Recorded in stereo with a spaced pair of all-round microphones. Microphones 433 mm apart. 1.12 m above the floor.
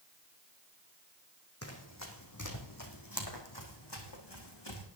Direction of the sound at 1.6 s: 35° left (ahead or behind).